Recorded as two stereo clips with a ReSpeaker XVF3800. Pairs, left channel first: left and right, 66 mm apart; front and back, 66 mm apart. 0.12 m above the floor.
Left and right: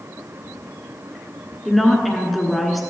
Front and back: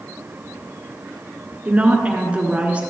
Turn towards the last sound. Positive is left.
turn(degrees=175)